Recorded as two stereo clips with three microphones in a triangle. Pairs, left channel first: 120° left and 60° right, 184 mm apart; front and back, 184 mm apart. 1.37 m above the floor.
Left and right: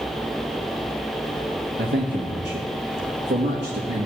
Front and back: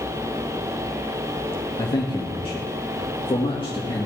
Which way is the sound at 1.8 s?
60° right.